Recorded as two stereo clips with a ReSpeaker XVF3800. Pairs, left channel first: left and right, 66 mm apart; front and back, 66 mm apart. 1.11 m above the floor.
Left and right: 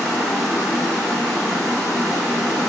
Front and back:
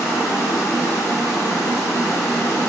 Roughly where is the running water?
Ahead.